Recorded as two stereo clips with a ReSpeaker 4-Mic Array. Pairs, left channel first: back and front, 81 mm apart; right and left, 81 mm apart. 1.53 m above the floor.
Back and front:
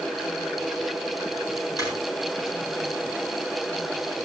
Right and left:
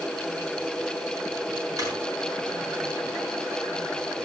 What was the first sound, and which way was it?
A drawer, 140° left.